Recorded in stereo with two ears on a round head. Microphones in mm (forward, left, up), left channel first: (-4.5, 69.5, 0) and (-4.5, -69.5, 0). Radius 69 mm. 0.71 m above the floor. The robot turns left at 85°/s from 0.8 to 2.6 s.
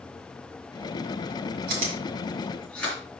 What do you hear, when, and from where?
1.7 s chewing: 70° right (ahead or behind), 4.5 m; by 3.0 s 5° left (ahead or behind), 4.5 m